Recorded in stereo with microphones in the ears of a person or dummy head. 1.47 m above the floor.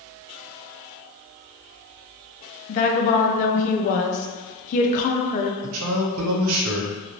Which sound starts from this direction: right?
A man speaking, at 5.6 s.